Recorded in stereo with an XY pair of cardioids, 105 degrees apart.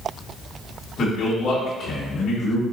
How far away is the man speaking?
About 1.4 m.